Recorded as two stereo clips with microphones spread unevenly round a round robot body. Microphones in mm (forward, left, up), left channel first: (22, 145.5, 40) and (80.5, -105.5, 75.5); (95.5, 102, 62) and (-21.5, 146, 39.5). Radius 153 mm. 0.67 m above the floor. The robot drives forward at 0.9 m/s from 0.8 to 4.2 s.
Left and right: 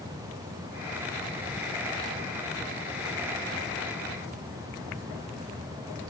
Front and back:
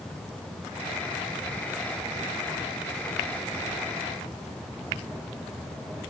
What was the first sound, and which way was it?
Only background noise.